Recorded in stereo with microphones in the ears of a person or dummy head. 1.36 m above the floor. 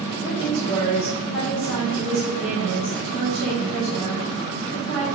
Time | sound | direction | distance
0.2 | a woman speaking | 50° right (ahead or behind) | 1.9 m